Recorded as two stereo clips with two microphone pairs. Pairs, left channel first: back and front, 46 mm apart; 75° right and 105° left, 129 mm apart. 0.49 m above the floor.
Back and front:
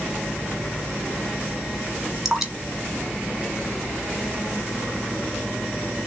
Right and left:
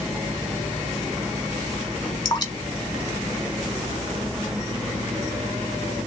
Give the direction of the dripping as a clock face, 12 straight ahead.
3 o'clock.